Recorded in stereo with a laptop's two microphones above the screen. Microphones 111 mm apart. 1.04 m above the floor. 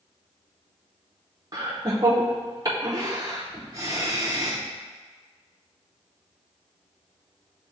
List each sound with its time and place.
1.5 s laughter: 35° right (ahead or behind), 0.7 m